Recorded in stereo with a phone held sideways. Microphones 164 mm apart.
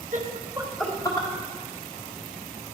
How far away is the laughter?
About 0.9 m.